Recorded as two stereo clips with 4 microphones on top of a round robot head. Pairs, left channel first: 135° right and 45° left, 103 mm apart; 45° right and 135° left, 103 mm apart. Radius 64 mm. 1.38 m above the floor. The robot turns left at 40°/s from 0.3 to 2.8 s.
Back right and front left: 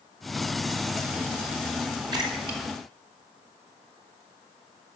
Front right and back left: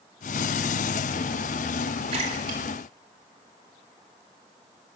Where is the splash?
100° left, 3.5 m; by 4.2 s 70° left, 3.5 m.